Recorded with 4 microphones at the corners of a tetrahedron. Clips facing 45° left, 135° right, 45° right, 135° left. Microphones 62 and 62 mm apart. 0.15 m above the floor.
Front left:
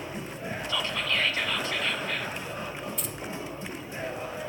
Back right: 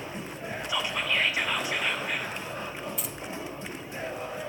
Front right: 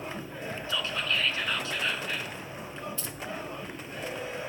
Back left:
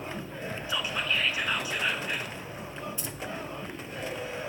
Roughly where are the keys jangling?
Behind left.